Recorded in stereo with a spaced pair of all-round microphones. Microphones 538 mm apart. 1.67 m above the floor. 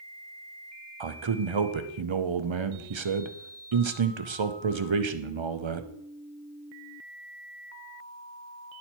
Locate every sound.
1.0 s a man speaking: 55° right (ahead or behind), 0.7 m